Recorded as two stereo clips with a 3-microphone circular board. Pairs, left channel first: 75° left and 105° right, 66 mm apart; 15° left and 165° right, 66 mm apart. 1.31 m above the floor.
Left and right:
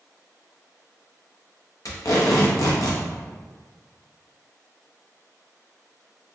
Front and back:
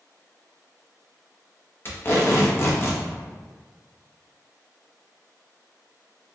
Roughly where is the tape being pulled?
Ahead left.